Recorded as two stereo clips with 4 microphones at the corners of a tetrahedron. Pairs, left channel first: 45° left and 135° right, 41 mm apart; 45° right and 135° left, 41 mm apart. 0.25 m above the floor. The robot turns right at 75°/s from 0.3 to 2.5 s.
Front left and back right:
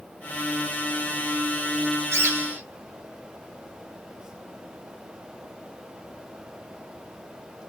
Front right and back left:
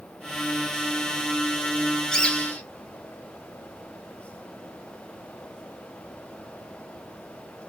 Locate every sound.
2.1 s a bird: 120° right, 0.8 m; by 2.6 s 95° right, 0.8 m